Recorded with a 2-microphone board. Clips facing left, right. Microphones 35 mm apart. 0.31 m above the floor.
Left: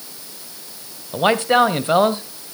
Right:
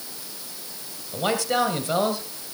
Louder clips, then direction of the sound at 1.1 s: Left 8 dB; 35° left (ahead or behind).